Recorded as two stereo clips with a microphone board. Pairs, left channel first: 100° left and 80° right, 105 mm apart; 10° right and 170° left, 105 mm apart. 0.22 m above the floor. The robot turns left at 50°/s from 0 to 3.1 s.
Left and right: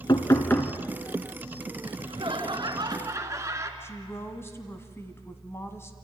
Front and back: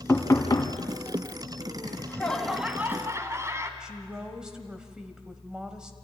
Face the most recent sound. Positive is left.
turn(degrees=95)